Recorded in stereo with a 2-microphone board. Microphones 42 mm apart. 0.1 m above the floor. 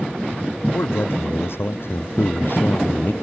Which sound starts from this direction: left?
A man speaking, at 0.7 s.